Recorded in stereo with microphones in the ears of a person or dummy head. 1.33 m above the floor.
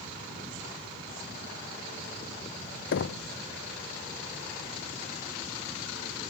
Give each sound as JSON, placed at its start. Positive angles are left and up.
{"t": 2.9, "sound": "knocking", "side_deg": 65, "distance_m": 0.5}